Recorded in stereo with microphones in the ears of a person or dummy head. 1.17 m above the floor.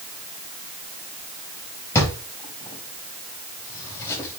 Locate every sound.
1.9 s a drawer: 15° left (ahead or behind), 4 m